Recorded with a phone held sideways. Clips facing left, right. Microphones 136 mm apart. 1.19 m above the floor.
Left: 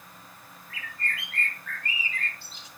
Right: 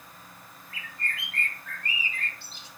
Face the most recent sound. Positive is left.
turn(degrees=-30)  # may be behind; listen again after turning